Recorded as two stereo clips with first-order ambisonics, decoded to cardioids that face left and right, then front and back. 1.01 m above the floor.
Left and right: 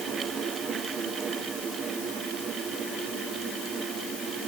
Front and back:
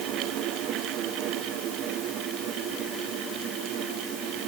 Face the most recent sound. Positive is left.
No sound to turn to.